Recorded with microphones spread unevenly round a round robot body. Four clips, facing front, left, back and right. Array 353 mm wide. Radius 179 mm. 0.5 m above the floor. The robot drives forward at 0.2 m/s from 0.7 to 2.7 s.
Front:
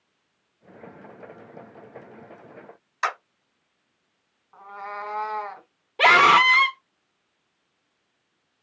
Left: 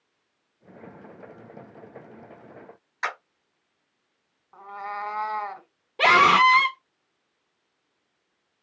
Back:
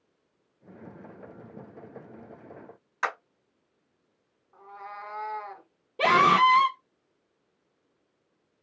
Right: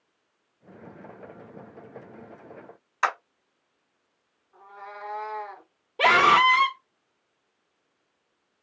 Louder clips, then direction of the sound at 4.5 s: Left 8 dB, front 6 dB; 60° left.